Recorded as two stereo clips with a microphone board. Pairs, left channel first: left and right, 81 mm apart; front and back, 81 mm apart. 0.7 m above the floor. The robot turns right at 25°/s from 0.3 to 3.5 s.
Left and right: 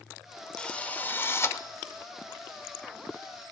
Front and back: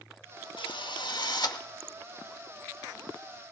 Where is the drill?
10° left, 1.0 m; by 1.6 s 35° left, 1.0 m.